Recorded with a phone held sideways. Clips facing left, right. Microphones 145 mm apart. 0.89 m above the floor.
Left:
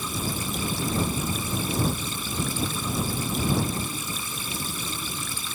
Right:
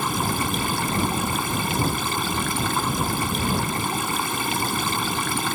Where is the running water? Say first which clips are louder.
Right 6 dB; 75° right (ahead or behind).